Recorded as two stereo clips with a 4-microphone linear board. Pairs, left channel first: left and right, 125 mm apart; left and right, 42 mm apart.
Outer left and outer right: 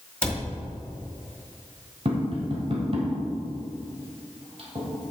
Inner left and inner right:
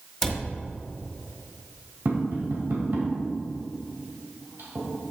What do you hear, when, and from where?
0.2 s a cupboard door: 10° left (ahead or behind), 1.6 m
2.0 s tapping: 55° right (ahead or behind), 2.0 m